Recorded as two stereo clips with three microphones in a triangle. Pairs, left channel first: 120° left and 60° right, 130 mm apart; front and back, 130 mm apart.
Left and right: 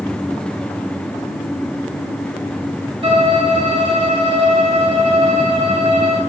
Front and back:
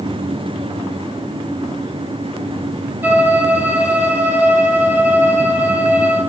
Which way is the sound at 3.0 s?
105° right.